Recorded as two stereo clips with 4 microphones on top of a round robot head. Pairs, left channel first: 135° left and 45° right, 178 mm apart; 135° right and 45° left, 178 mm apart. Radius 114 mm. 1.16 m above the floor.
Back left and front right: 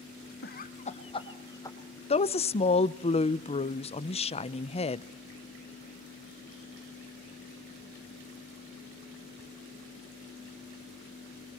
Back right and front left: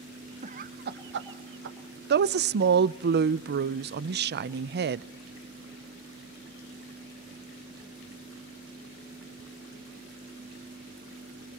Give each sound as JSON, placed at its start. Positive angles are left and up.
{"t": 0.4, "sound": "laughter", "azimuth_deg": 100, "distance_m": 0.9}
{"t": 2.1, "sound": "a woman speaking", "azimuth_deg": 75, "distance_m": 0.6}